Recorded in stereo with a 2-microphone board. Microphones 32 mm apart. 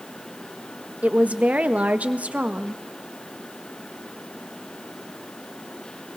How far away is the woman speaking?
About 1.3 m.